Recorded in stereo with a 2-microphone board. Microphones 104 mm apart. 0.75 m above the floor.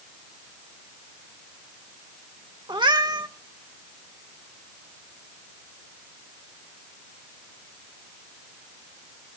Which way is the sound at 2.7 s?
45° right (ahead or behind).